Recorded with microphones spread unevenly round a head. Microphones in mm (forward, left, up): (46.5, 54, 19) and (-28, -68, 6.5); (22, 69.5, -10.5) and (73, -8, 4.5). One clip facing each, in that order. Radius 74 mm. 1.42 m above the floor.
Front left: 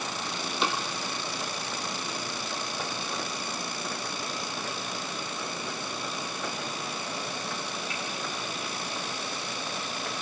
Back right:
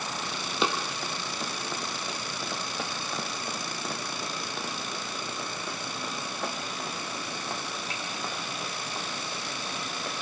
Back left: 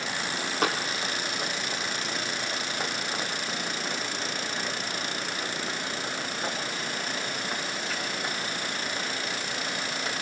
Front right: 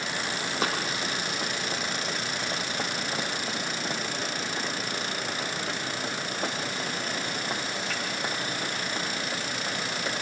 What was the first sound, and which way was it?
Running footsteps, 140° right.